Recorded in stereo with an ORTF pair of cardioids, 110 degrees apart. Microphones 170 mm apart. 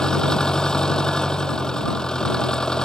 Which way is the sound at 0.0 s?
5° left.